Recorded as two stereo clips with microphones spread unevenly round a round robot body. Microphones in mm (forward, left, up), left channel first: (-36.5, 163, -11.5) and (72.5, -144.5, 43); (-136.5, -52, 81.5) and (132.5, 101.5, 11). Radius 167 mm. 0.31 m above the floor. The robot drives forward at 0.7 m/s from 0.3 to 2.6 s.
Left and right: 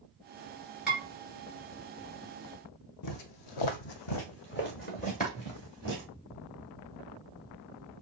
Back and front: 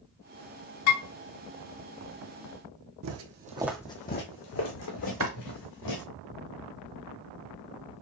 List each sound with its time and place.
0.9 s dishes clattering: 160° right, 3.5 m
3.0 s footsteps: 70° left, 1.0 m; by 6.0 s 170° right, 3 m
5.2 s chopping: 20° left, 1.5 m